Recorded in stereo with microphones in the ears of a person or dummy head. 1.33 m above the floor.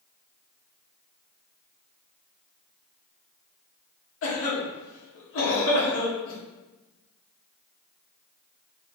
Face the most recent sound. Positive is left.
turn(degrees=60)  # may be behind; listen again after turning